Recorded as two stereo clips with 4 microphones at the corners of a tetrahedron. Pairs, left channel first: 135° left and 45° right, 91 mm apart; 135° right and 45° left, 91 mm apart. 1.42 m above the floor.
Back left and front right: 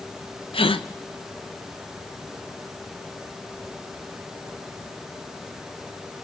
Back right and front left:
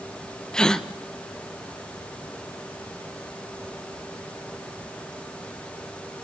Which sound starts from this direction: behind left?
A gasp, at 0.5 s.